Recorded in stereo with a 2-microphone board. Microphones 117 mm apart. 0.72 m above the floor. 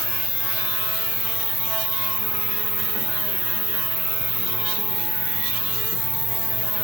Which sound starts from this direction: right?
An insect, at 0.0 s.